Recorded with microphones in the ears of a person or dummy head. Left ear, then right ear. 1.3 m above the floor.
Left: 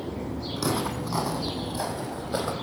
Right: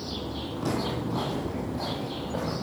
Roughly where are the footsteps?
Left.